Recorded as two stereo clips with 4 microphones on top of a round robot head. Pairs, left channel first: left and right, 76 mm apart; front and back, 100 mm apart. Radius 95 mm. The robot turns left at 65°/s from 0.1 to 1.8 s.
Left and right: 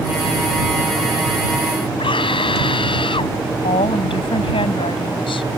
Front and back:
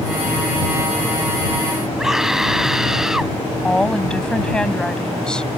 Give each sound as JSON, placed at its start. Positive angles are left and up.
{"t": 2.0, "sound": "a scream", "azimuth_deg": 90}
{"t": 3.6, "sound": "a woman speaking", "azimuth_deg": 80}